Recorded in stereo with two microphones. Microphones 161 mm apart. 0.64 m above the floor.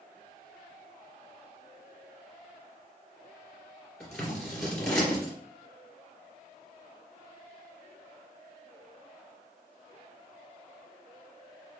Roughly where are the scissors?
Centre.